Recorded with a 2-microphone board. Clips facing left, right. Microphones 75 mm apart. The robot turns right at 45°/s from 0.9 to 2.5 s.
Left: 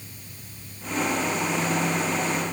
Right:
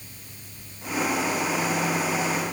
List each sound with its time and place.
Only background noise.